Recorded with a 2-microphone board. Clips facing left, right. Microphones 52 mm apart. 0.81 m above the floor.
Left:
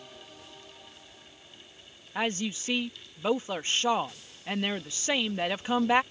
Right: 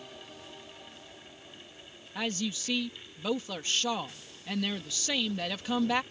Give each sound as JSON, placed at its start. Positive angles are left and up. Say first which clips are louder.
{"t": 2.1, "sound": "a woman speaking", "louder": "left 3 dB", "side_deg": 30}